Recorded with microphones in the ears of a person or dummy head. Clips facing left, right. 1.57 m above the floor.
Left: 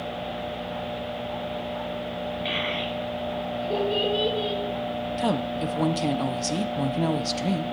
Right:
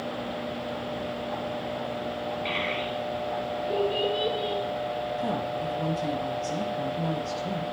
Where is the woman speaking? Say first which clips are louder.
Left 3 dB; 85° left, 0.8 m.